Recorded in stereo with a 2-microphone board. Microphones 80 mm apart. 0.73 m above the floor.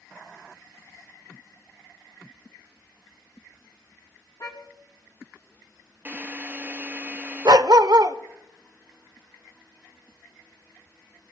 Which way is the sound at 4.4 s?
55° left (ahead or behind).